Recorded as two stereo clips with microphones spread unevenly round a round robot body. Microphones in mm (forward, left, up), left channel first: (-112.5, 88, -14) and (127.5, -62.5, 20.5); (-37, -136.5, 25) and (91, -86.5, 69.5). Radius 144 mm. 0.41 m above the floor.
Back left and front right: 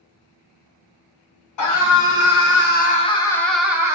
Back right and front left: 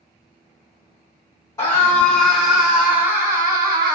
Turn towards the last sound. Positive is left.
turn(degrees=50)